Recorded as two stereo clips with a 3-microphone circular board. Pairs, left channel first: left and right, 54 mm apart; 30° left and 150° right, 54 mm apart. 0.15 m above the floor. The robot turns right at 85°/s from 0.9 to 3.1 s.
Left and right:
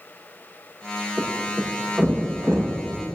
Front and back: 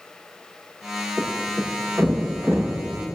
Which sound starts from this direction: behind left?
A thud, at 1.2 s.